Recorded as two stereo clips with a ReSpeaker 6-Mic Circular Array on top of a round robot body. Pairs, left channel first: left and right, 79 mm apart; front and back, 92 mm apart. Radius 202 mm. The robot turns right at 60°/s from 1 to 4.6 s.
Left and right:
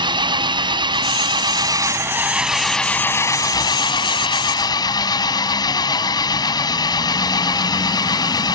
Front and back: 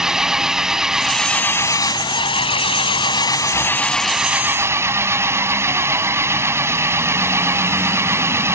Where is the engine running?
95° right; by 8.6 s 120° left.